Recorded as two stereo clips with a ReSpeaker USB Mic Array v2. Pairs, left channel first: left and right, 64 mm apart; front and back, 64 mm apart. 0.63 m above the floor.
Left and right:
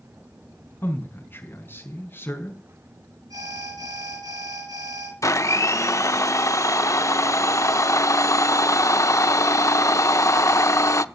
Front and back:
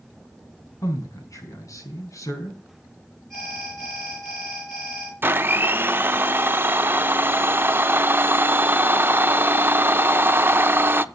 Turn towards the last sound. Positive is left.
turn(degrees=125)